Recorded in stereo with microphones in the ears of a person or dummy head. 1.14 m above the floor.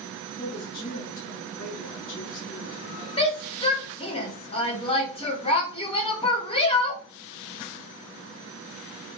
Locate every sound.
0.3 s a woman speaking: 45° left (ahead or behind), 1.7 m
3.2 s a shout: 35° left (ahead or behind), 0.7 m